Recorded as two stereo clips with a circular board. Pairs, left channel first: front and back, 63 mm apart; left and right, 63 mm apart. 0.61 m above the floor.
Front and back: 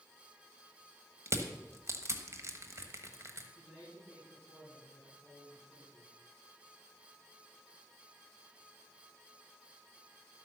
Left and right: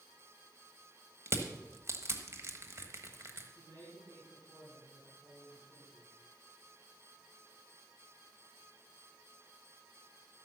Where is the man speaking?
110° right, 5.5 m.